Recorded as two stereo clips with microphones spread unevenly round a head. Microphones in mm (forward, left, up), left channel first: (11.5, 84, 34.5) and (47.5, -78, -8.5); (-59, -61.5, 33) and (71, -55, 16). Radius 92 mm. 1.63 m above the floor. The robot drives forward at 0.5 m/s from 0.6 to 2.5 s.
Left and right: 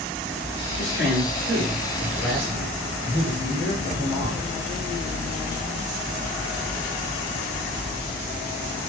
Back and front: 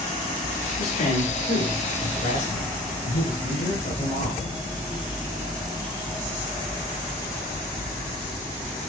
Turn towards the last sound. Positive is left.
turn(degrees=-175)